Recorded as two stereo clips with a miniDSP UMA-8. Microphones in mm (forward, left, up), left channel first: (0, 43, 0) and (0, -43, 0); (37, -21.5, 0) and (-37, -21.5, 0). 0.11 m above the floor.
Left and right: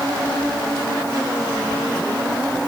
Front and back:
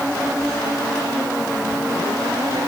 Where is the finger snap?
I don't hear a finger snap.